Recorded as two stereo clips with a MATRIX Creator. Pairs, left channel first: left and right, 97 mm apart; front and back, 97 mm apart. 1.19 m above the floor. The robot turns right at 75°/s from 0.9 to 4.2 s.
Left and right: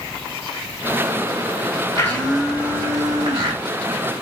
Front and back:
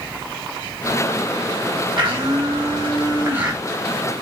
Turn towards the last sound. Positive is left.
turn(degrees=-45)